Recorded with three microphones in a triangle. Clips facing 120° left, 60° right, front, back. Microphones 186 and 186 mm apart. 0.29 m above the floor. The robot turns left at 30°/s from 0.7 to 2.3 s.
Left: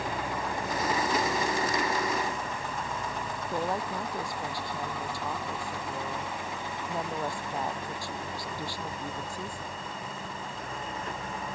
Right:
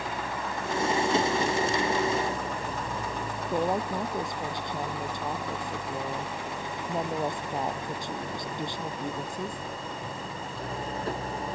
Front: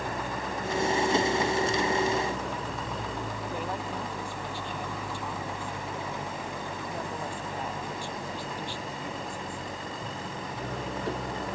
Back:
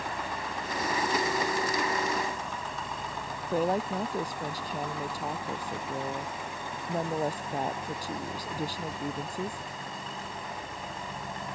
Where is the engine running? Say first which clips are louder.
Left 1 dB, front 3 dB; 45° left; by 11.5 s 5° right.